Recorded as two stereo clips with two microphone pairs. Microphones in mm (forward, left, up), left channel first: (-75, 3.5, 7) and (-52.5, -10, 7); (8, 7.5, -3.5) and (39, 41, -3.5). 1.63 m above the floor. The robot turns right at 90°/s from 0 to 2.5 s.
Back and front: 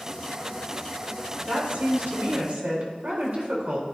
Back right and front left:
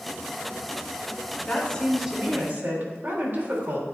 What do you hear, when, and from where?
1.5 s a woman speaking: 90° right, 3.5 m; by 3.8 s 5° left, 3.5 m